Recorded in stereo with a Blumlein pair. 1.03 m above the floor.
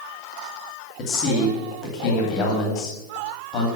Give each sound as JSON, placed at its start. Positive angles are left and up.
{"t": 1.0, "sound": "a man speaking", "azimuth_deg": 30, "distance_m": 2.0}